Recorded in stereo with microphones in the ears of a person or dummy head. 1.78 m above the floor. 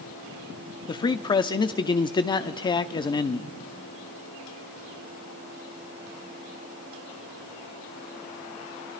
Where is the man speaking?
20° left (ahead or behind), 0.5 m.